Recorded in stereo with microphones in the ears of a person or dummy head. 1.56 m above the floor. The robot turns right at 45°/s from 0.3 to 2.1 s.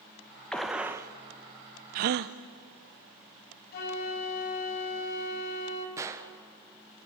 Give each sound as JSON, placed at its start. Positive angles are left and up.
{"t": 0.5, "sound": "a gunshot", "side_deg": 5, "distance_m": 0.9}
{"t": 1.9, "sound": "a gasp", "side_deg": -40, "distance_m": 0.7}
{"t": 3.7, "sound": "a flute", "side_deg": 50, "distance_m": 3.5}
{"t": 6.0, "sound": "a gunshot", "side_deg": -15, "distance_m": 1.4}